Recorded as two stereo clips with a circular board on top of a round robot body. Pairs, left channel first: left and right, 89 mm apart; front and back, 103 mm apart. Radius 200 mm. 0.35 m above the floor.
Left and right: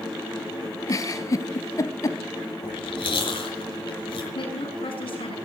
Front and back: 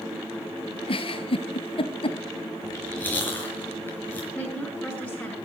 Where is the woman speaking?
80° left, 9.5 m.